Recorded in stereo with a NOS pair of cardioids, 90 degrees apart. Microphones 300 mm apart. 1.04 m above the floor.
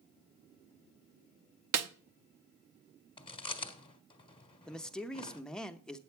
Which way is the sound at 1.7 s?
65° right.